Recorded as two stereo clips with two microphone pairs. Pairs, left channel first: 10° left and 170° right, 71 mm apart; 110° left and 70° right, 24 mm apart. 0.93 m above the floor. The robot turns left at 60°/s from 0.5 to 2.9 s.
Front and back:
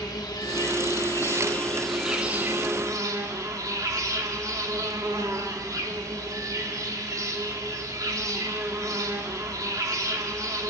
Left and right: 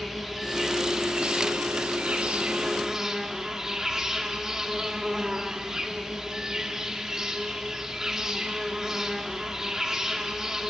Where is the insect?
10° left, 2 m; by 10.7 s 135° right, 2 m.